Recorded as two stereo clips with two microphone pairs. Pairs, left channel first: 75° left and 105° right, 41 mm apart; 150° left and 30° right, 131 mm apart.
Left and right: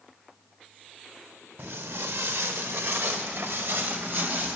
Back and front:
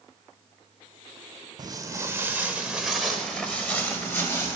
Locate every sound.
1.6 s footsteps: 90° right, 1.2 m; by 4.6 s 145° right, 2 m